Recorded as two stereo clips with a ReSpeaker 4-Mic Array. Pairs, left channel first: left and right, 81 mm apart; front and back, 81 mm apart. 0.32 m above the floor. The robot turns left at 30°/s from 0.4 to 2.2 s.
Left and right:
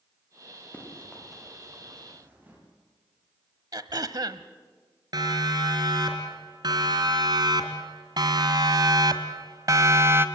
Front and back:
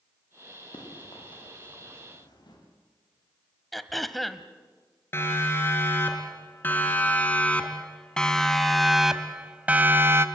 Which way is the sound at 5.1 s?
60° right.